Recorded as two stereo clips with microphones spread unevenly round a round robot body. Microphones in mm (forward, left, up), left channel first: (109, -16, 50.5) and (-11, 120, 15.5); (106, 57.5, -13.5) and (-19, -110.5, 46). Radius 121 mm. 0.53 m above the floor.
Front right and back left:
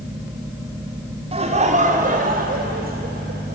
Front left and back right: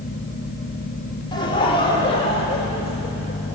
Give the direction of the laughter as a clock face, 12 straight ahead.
9 o'clock.